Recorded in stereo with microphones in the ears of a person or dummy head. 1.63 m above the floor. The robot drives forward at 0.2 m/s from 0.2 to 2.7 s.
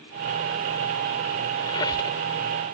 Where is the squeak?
20° left (ahead or behind).